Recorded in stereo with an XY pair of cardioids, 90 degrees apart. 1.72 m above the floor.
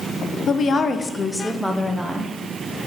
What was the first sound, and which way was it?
A woman speaking, 55° left.